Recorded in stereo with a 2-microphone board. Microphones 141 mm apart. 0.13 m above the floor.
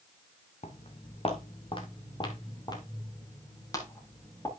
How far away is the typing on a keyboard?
I don't hear typing on a keyboard.